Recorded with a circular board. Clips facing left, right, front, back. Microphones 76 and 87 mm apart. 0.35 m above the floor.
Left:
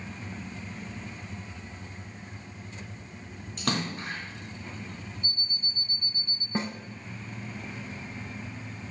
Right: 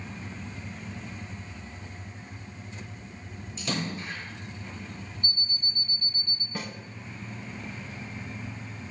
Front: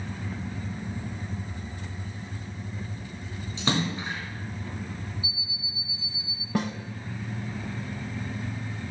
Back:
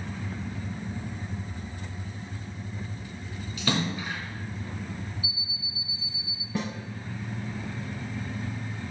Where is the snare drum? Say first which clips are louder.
Left 6 dB, front 3 dB; 30° left, 0.7 m.